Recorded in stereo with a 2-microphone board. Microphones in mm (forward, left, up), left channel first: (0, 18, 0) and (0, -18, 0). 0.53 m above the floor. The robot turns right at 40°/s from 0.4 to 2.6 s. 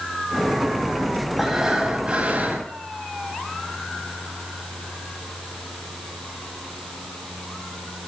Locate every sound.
1.4 s breathing: 175° right, 3.5 m; by 2.7 s 125° right, 3.5 m